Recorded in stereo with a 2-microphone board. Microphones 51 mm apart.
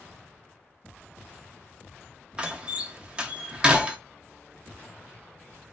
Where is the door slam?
20° right (ahead or behind), 0.5 m.